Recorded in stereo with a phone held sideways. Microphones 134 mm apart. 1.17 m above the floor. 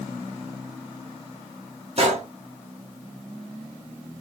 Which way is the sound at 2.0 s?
50° right (ahead or behind).